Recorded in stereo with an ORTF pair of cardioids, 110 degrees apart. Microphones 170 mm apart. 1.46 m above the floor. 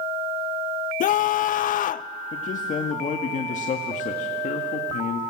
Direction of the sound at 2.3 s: 50° left.